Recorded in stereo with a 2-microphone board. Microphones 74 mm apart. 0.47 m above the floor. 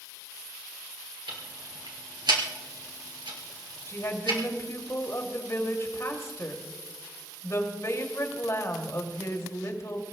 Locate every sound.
1.3 s ticking: 90° right, 3 m
3.9 s a woman speaking: 45° left (ahead or behind), 2.5 m